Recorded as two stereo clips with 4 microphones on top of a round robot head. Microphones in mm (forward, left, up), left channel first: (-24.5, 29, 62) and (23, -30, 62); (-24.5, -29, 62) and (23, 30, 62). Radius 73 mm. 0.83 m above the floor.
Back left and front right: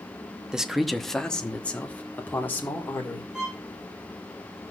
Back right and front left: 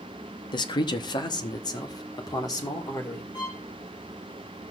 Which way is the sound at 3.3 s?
135° right.